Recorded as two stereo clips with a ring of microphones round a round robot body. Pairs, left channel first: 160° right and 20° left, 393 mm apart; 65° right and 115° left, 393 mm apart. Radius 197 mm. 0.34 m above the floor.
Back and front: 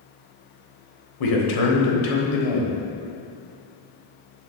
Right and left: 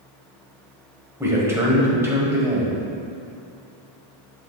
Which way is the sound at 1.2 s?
165° right.